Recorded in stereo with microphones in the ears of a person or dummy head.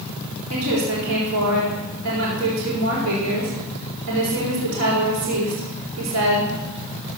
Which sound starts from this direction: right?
A woman speaking, at 0.5 s.